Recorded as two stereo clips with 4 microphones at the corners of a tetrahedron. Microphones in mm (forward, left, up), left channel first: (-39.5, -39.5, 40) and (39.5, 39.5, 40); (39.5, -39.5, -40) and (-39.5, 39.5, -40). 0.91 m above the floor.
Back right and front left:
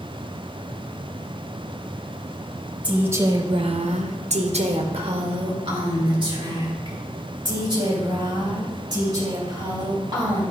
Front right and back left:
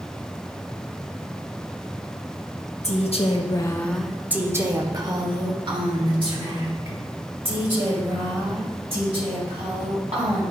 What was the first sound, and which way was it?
A woman speaking, 35° right.